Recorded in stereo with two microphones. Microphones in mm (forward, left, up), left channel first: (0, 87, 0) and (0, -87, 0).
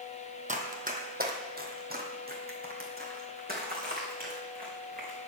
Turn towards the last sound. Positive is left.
turn(degrees=-55)  # may be behind; listen again after turning